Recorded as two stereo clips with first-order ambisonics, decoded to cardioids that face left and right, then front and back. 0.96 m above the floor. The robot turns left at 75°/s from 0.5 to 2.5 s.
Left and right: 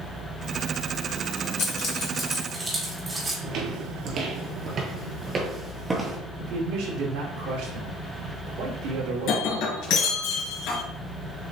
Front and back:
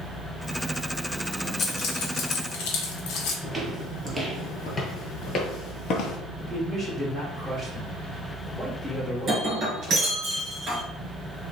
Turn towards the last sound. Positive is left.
turn(degrees=110)